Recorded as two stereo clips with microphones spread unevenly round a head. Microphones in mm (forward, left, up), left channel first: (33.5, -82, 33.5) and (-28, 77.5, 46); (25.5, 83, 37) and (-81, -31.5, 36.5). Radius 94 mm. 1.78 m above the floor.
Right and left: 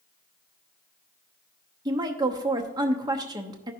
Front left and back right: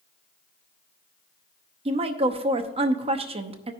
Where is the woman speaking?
175° left, 0.7 m.